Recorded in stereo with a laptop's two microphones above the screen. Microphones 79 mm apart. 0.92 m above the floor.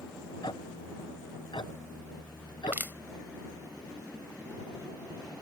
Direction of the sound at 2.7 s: 25° right (ahead or behind).